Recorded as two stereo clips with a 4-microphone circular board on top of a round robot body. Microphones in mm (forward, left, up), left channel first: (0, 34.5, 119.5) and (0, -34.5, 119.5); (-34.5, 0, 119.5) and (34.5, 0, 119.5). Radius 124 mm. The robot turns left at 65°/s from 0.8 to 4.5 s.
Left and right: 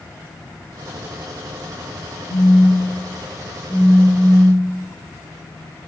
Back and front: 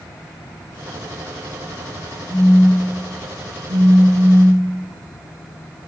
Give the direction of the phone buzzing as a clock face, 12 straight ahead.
9 o'clock.